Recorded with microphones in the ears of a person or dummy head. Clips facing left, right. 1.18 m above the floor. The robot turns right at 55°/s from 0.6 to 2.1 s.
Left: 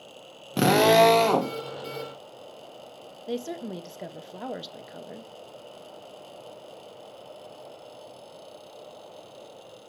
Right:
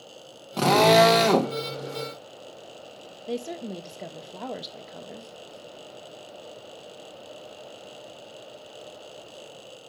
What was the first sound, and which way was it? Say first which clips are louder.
A drill: even; 160° left.